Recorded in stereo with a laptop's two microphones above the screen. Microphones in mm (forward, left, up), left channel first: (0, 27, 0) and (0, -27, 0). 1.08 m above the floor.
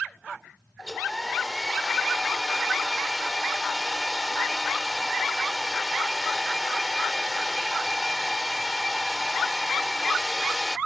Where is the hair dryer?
10° left (ahead or behind).